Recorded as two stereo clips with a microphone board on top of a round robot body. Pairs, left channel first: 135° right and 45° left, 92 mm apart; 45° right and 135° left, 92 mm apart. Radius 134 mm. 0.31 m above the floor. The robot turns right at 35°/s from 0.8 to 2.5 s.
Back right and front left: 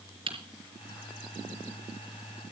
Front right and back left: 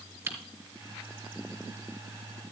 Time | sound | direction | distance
0.3 | typing on a keyboard | 65° left | 4 m